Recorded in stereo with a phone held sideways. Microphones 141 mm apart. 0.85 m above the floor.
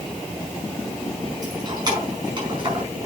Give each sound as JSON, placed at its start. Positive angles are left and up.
{"t": 1.4, "sound": "keys jangling", "side_deg": -30, "distance_m": 5.0}